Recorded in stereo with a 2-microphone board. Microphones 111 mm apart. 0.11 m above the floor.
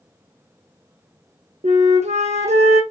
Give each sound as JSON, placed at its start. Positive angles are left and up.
{"t": 1.6, "sound": "a flute", "side_deg": -75, "distance_m": 1.0}